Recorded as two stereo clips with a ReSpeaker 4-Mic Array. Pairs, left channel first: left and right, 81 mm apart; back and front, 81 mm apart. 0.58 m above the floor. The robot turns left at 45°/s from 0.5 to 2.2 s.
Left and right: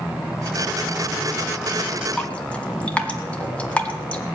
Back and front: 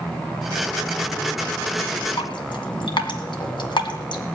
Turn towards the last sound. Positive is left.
turn(degrees=165)